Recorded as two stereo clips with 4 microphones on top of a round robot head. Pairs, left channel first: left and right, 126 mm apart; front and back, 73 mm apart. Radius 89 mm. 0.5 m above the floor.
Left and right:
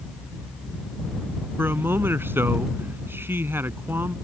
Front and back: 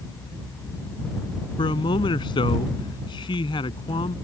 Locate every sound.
1.6 s a man speaking: 15° right